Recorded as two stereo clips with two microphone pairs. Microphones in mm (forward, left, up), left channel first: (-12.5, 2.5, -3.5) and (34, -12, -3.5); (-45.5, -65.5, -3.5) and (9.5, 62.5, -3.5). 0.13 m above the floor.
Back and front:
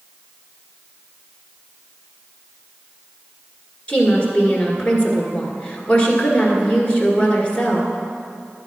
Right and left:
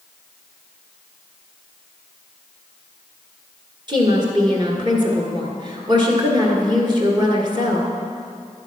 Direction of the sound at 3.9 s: 105° left.